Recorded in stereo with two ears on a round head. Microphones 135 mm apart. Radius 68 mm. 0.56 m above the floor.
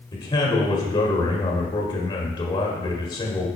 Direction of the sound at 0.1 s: 30° left (ahead or behind).